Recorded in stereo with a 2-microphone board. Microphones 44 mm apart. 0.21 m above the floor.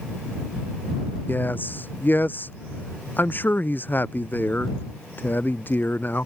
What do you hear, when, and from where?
1.3 s a man speaking: 45° left (ahead or behind)